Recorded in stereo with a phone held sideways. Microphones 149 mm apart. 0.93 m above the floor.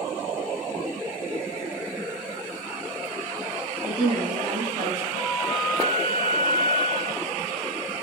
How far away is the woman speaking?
About 4 m.